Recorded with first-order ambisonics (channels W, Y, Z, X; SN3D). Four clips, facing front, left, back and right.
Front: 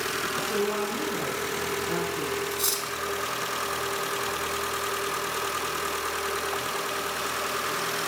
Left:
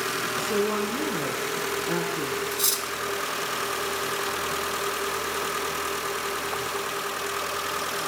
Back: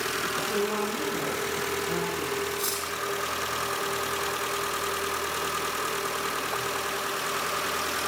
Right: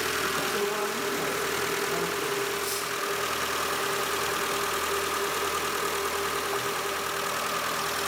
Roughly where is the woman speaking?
Left.